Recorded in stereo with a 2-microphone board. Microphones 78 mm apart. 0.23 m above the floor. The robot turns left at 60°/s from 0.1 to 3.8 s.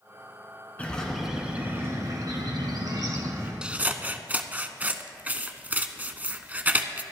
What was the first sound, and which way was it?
A bird, 25° left.